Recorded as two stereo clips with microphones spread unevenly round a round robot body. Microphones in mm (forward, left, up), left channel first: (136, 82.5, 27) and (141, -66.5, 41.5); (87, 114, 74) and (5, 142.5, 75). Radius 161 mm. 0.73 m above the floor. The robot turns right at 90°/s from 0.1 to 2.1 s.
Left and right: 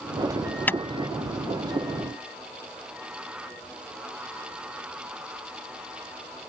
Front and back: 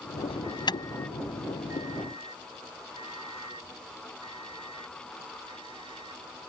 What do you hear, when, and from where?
0.3 s an alarm: 20° right; by 6.5 s 140° left